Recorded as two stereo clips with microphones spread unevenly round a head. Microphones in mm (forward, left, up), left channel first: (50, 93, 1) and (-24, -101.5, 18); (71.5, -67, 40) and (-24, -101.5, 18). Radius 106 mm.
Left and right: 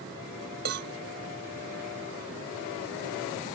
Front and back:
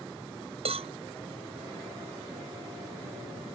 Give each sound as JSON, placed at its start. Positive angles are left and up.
{"t": 0.7, "sound": "a cowbell", "azimuth_deg": -150}